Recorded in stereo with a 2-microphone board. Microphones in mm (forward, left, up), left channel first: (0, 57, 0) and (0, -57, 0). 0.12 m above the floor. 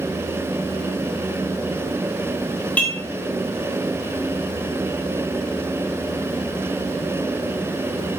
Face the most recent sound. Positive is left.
turn(degrees=15)  # may be behind; listen again after turning